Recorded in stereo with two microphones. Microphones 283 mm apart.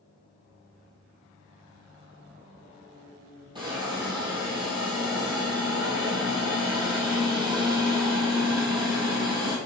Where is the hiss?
15° right (ahead or behind), 2 m.